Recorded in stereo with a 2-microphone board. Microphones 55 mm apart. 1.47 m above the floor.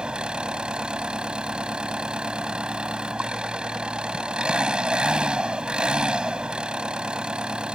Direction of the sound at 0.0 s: 15° right (ahead or behind).